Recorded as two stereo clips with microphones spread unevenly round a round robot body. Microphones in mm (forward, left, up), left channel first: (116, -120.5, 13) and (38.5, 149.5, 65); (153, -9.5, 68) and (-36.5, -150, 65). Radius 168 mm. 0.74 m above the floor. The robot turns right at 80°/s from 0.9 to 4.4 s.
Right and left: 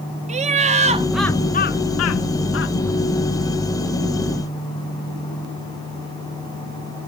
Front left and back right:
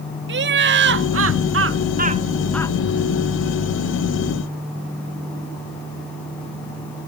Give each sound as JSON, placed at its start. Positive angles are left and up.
{"t": 0.3, "sound": "laughter", "azimuth_deg": 180}